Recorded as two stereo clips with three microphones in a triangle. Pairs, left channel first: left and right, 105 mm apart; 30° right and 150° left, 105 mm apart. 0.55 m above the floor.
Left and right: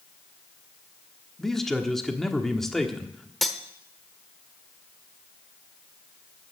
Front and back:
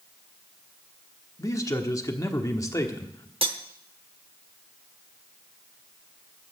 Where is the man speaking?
5° left, 1.3 m.